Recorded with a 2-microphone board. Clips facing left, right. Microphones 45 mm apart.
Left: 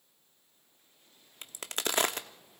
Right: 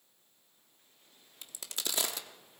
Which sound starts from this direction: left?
A crack, at 1.4 s.